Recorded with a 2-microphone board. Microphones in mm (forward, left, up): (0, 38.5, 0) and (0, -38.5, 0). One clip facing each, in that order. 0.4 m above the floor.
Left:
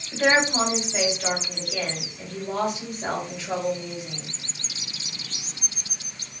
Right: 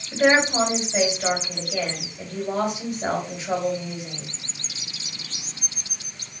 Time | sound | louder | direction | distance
0.1 | a woman speaking | right 2 dB | 20° right (ahead or behind) | 1.8 m